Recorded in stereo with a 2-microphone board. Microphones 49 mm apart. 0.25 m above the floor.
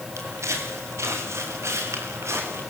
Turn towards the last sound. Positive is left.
turn(degrees=-70)  # may be behind; listen again after turning